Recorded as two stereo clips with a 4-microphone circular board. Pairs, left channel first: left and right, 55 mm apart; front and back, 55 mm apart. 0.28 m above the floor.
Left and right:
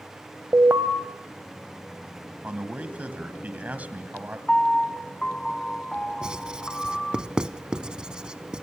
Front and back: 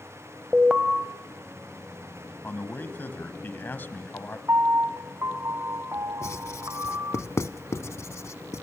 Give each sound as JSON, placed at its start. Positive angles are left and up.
{"t": 0.5, "sound": "an alarm", "azimuth_deg": -110, "distance_m": 0.9}
{"t": 2.4, "sound": "a man speaking", "azimuth_deg": -40, "distance_m": 1.7}
{"t": 4.5, "sound": "a piano", "azimuth_deg": 165, "distance_m": 0.7}
{"t": 6.2, "sound": "writing", "azimuth_deg": -15, "distance_m": 0.7}